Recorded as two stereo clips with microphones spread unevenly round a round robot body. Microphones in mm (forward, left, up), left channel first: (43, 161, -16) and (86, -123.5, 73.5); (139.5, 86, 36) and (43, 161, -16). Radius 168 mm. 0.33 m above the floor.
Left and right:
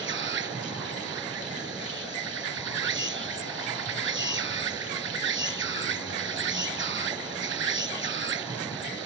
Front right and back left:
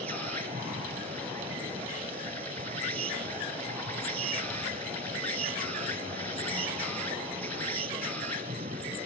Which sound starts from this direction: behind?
An insect, at 0.0 s.